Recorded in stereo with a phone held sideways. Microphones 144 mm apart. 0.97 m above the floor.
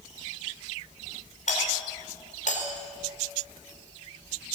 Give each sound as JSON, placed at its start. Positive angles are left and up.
{"t": 1.5, "sound": "a doorbell", "side_deg": 65, "distance_m": 4.5}